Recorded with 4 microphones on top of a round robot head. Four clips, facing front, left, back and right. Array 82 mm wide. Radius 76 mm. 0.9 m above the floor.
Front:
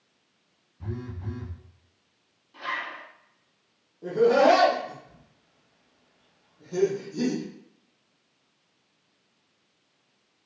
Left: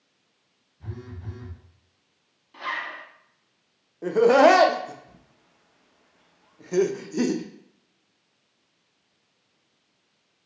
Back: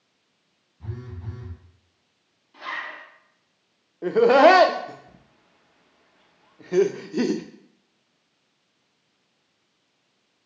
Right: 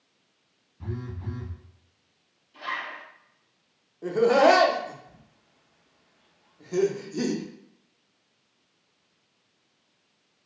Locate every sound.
0.8 s a phone buzzing: 70° right, 1.5 m
2.5 s a zipper: 85° left, 1.1 m
4.0 s laughter: 155° left, 0.5 m